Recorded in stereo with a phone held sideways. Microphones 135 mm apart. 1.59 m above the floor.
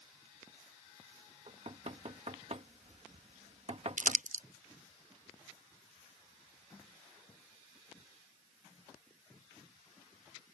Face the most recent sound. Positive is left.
turn(degrees=-70)  # may be behind; listen again after turning